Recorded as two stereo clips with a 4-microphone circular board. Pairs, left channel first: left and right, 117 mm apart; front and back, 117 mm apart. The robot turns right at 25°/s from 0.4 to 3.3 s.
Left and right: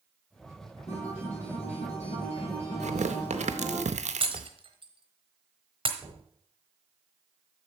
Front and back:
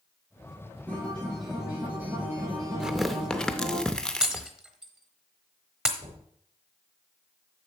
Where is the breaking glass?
100° right, 1.0 m.